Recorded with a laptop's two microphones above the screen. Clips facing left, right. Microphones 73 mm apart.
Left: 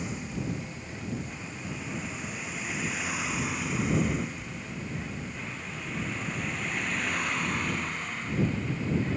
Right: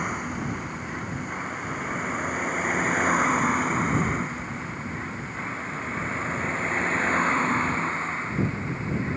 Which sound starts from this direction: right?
A vehicle, at 0.0 s.